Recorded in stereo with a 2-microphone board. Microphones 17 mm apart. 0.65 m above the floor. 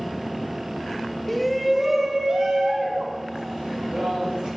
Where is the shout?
5° left (ahead or behind), 1.4 m; by 4.5 s 45° right (ahead or behind), 3.5 m.